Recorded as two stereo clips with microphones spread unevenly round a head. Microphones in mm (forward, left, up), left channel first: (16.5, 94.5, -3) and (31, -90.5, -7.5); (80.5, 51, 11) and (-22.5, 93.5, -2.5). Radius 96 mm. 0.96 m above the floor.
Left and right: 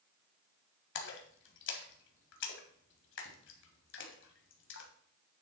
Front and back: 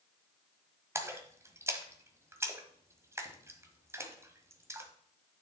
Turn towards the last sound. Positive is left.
turn(degrees=90)